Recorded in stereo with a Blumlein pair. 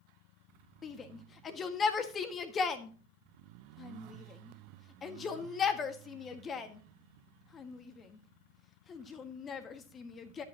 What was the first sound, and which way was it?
A shout, 20° left.